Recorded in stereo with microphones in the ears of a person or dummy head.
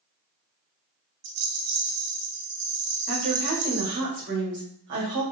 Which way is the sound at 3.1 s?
50° right (ahead or behind).